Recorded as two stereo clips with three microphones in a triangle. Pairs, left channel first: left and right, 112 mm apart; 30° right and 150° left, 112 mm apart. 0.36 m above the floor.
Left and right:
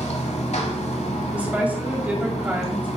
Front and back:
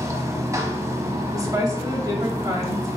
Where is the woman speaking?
165° right, 2 m.